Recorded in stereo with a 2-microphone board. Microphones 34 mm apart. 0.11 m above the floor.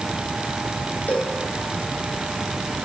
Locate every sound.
1.1 s a cowbell: 70° left (ahead or behind), 4 m